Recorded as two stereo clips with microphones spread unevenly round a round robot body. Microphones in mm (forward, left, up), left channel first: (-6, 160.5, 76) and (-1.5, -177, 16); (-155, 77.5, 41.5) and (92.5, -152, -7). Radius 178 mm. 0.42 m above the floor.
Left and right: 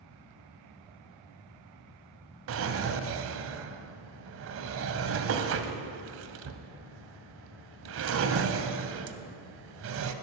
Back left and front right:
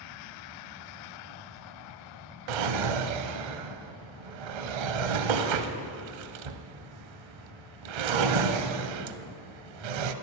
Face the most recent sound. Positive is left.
turn(degrees=-35)